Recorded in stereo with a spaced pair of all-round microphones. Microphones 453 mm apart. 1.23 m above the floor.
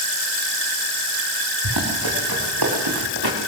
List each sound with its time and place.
1.6 s running footsteps: 55° right (ahead or behind), 7 m